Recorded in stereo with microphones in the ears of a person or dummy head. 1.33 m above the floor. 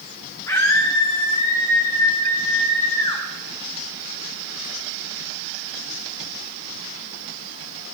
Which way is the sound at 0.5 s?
15° left (ahead or behind).